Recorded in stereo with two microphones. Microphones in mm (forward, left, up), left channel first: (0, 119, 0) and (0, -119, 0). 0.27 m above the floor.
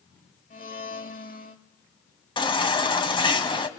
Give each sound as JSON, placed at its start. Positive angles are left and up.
{"t": 0.5, "sound": "a blender", "side_deg": 35, "distance_m": 1.6}
{"t": 2.4, "sound": "a baby crying", "side_deg": 20, "distance_m": 1.5}